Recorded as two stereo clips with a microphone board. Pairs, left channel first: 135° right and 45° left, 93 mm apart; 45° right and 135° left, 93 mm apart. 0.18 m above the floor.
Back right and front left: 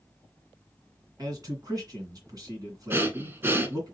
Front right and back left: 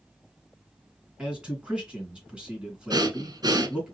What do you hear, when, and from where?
1.2 s a man speaking: 60° left, 2 m
2.9 s breathing: 105° left, 0.9 m